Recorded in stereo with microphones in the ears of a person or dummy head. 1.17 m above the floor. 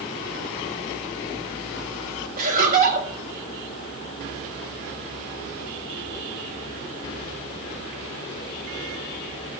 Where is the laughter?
45° right (ahead or behind), 6.5 m.